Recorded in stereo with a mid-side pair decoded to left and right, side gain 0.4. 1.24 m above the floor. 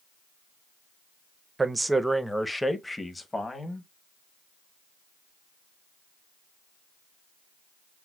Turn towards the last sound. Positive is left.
turn(degrees=30)